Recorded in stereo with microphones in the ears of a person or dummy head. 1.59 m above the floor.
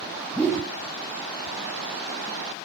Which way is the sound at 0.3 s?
10° left (ahead or behind).